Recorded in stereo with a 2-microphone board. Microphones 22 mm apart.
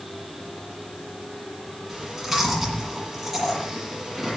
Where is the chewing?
20° right (ahead or behind), 6 m.